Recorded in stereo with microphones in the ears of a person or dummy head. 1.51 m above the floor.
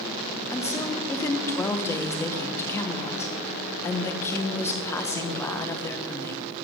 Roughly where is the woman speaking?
Centre.